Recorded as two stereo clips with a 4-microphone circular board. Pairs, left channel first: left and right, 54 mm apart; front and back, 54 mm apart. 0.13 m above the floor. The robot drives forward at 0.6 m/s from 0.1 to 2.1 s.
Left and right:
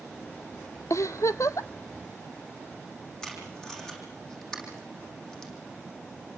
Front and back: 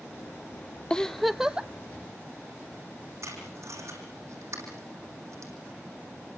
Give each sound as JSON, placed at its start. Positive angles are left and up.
{"t": 0.9, "sound": "a giggle", "azimuth_deg": 75, "distance_m": 0.7}
{"t": 3.2, "sound": "tape being pulled", "azimuth_deg": 170, "distance_m": 6.5}